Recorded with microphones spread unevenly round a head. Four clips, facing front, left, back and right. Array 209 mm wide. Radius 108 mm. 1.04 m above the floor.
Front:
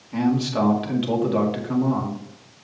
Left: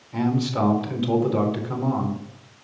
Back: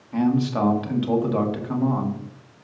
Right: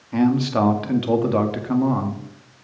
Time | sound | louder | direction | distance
0.1 | a man speaking | right 5 dB, even | 80° right | 2.0 m